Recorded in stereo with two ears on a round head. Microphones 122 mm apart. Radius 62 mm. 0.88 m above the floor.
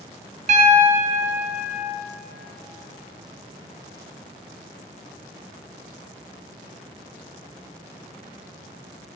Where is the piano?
55° right (ahead or behind), 0.8 m.